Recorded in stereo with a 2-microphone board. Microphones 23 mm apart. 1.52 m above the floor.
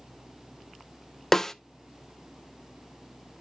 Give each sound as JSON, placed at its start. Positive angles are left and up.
{"t": 1.3, "sound": "a snare drum", "side_deg": 20, "distance_m": 0.6}